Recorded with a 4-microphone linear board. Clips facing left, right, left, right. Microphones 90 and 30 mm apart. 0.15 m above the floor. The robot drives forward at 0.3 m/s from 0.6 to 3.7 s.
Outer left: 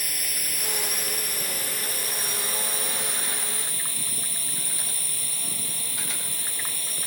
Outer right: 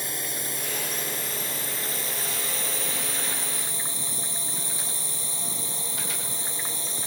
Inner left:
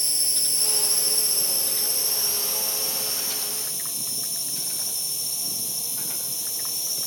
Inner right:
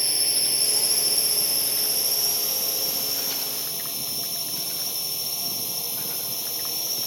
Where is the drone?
30° right (ahead or behind); by 7.1 s 25° right (ahead or behind).